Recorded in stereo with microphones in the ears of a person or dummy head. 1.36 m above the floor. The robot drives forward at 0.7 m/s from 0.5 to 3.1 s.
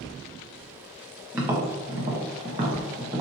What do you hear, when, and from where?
1.3 s tapping: 15° right (ahead or behind), 0.9 m